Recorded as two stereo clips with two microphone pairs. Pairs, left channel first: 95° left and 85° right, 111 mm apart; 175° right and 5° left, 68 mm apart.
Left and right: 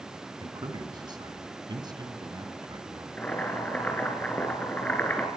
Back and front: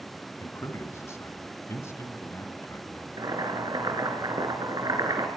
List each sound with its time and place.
0.4 s a man speaking: 130° right, 2.5 m
3.2 s boiling: 15° left, 4 m